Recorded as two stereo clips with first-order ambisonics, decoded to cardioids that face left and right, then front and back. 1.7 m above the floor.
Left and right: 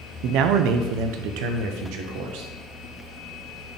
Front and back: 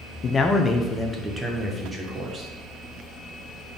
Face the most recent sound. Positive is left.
turn(degrees=-110)